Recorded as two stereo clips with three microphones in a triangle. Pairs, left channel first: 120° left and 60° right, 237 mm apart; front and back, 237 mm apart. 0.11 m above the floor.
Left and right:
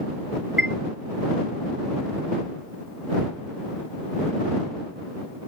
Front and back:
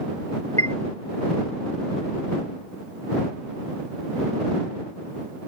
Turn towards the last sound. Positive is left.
turn(degrees=-20)